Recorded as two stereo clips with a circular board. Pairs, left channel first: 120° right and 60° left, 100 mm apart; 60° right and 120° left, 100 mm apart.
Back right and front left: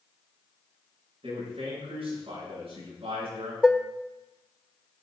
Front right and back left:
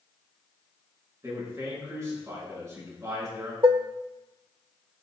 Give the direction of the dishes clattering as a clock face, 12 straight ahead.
7 o'clock.